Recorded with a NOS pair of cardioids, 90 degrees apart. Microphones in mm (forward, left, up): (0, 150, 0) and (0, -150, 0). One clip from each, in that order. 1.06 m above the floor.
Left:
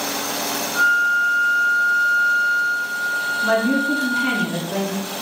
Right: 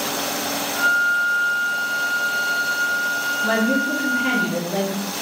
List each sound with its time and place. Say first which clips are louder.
0.8 s a flute: left 2 dB; 35° left, 1.0 m
3.4 s a woman speaking: left 2 dB; 50° left, 2.5 m